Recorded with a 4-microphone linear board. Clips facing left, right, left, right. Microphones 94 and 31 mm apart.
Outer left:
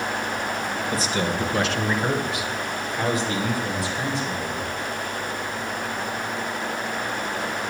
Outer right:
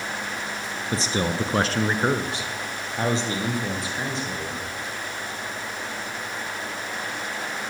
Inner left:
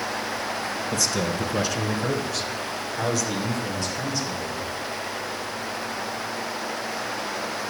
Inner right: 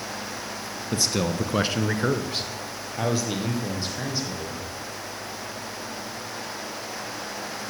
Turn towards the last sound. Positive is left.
turn(degrees=-20)  # may be behind; listen again after turning